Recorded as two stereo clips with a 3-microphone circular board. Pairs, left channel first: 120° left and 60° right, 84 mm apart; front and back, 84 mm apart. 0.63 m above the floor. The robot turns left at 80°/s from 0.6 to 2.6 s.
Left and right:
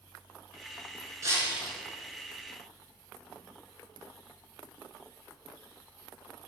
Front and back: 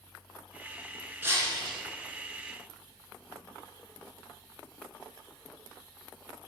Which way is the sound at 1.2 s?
110° right.